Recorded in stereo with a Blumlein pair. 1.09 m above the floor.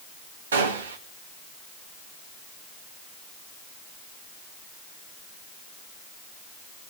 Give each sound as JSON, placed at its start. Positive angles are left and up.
{"t": 0.5, "sound": "a gunshot", "azimuth_deg": -65, "distance_m": 1.5}